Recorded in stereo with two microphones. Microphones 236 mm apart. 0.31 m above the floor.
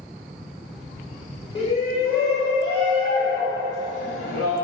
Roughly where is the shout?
Left.